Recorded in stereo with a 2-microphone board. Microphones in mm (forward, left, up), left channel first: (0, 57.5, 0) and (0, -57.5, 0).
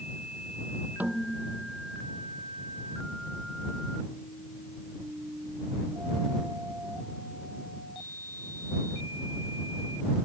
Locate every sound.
1.0 s a snare drum: 15° right (ahead or behind)